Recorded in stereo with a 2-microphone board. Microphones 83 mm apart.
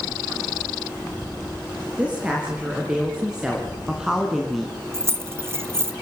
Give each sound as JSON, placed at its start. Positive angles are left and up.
{"t": 2.0, "sound": "a woman speaking", "side_deg": -15, "distance_m": 4.0}
{"t": 4.9, "sound": "keys jangling", "side_deg": -30, "distance_m": 1.5}